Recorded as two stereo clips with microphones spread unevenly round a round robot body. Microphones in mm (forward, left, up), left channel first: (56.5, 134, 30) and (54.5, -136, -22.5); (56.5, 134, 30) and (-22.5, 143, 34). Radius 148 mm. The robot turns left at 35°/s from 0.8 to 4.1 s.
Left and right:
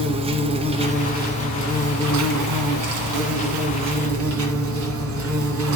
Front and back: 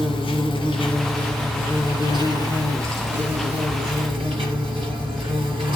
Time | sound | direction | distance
0.0 | an insect | 20° right | 1.7 m